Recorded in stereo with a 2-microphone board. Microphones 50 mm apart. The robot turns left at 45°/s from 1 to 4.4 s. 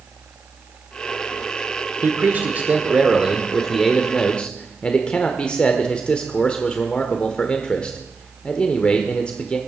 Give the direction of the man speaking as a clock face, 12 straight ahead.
3 o'clock.